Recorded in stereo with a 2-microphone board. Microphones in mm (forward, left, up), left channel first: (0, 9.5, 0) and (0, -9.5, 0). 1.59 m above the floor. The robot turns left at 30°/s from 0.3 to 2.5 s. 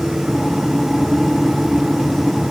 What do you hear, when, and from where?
Only background noise.